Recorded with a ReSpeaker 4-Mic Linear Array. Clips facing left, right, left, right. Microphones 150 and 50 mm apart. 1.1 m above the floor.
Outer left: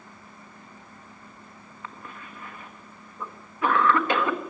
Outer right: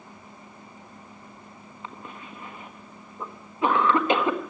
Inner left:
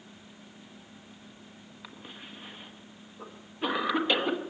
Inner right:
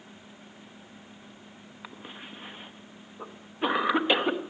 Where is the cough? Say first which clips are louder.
Outer right 2 dB, inner right 3 dB; 20° right (ahead or behind), 1.2 m.